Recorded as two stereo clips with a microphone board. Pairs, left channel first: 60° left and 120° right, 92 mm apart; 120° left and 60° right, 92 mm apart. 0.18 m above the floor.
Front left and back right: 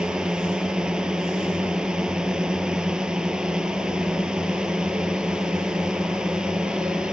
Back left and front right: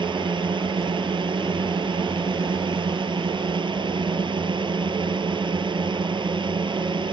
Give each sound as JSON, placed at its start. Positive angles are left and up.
{"t": 0.0, "sound": "a drone", "azimuth_deg": -40}